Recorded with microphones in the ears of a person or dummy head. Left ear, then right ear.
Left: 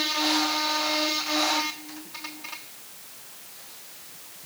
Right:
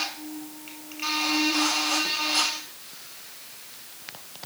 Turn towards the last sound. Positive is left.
No sound to turn to.